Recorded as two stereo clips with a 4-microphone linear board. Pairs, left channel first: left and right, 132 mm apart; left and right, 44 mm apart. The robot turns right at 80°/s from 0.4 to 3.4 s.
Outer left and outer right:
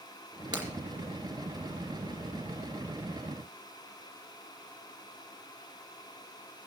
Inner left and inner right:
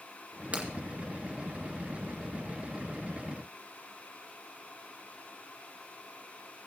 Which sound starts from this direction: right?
Breaking glass, at 0.5 s.